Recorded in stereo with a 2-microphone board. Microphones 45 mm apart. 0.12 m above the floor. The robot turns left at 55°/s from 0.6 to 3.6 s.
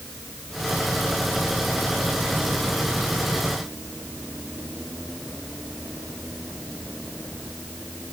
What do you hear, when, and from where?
Only background noise.